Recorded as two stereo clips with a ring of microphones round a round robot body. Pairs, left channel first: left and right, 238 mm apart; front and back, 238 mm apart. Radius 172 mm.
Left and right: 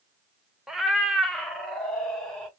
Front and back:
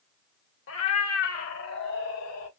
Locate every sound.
0.7 s a cat meowing: straight ahead, 0.6 m; by 2.5 s 5° left, 1.6 m